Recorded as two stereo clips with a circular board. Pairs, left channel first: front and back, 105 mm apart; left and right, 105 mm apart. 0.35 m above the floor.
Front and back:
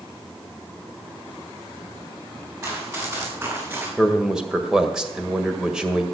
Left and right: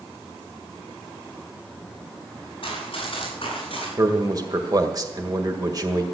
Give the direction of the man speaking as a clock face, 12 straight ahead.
3 o'clock.